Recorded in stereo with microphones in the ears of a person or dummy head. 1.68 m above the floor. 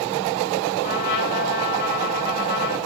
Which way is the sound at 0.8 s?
55° left (ahead or behind).